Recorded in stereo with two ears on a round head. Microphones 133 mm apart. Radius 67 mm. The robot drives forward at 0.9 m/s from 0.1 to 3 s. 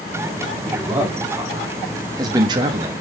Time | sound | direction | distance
0.7 | a man speaking | 10° right (ahead or behind) | 2 m